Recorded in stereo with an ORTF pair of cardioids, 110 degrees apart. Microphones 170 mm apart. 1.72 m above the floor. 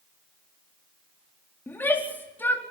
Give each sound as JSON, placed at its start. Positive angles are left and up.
{"t": 1.7, "sound": "a shout", "azimuth_deg": 10, "distance_m": 4.0}